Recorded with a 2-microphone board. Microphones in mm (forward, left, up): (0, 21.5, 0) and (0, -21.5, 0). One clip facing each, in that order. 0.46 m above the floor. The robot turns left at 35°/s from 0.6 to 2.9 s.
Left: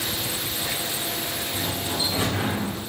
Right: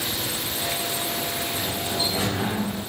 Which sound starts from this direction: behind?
A sliding door, at 1.5 s.